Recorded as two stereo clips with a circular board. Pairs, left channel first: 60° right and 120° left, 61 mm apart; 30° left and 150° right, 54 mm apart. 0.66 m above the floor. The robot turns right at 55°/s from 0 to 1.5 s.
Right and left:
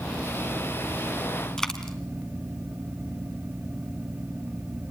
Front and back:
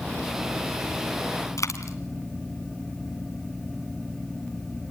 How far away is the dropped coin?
About 1.9 m.